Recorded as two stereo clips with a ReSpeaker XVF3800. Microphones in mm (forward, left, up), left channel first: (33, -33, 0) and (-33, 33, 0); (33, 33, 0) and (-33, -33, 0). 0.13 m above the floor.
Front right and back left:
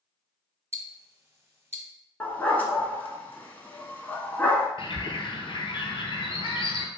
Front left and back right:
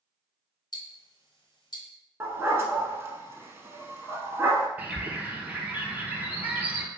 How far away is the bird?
About 0.6 m.